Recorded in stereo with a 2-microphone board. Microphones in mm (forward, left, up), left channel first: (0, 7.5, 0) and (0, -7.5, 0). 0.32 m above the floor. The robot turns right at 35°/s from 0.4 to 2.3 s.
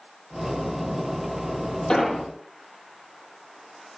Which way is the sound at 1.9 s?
50° left (ahead or behind).